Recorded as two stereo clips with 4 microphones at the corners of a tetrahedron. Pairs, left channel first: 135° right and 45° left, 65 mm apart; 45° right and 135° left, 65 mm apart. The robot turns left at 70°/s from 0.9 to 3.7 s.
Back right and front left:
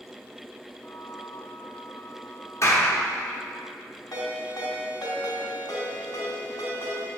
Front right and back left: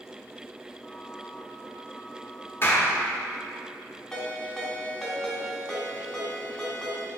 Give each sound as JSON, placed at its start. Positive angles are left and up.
{"t": 2.6, "sound": "a clap", "azimuth_deg": -95, "distance_m": 1.1}
{"t": 4.1, "sound": "a ringtone", "azimuth_deg": -125, "distance_m": 1.8}